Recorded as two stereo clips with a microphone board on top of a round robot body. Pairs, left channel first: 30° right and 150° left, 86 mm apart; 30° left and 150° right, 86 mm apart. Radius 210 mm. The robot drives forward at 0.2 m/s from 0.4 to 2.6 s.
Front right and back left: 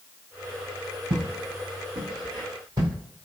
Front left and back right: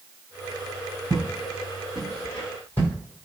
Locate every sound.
1.1 s footsteps: 155° left, 1.1 m; by 2.9 s 100° left, 1.3 m